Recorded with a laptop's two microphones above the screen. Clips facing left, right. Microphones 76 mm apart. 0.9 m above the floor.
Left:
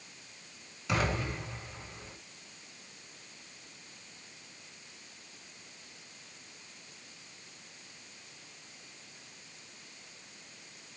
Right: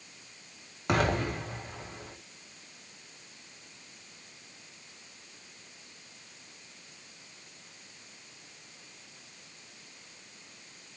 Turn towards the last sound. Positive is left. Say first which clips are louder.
# right 4 dB
turn(degrees=-55)  # may be behind; listen again after turning